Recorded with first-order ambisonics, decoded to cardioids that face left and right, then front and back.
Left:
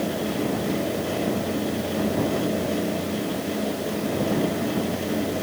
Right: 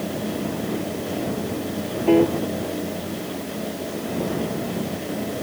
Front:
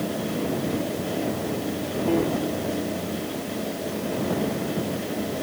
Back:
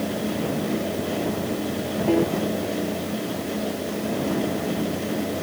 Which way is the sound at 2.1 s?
100° right.